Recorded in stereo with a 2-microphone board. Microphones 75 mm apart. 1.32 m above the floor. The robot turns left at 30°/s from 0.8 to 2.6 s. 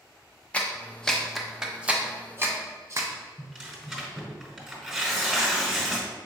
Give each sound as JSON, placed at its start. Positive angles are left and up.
{"t": 0.5, "sound": "a clap", "side_deg": 15, "distance_m": 0.6}
{"t": 3.4, "sound": "tearing paper", "side_deg": 0, "distance_m": 1.3}